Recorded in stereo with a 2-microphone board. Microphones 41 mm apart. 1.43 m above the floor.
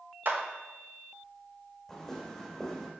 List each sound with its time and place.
0.2 s a clap: 55° right (ahead or behind), 1.2 m
1.9 s footsteps: 10° left (ahead or behind), 3 m